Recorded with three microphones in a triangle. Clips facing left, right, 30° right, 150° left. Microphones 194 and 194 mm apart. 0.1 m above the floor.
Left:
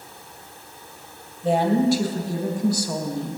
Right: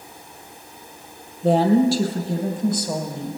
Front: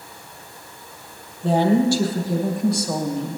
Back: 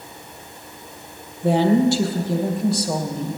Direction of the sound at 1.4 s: 135° right.